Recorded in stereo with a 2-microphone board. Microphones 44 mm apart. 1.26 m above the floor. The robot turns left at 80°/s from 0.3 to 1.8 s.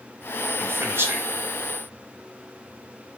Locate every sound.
0.6 s a man speaking: 50° right (ahead or behind), 0.9 m; by 1.3 s 55° right (ahead or behind), 0.9 m